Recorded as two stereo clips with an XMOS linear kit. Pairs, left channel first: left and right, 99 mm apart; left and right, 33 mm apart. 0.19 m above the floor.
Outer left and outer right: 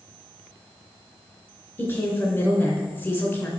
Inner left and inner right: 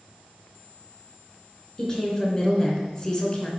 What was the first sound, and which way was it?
A woman speaking, 20° left (ahead or behind).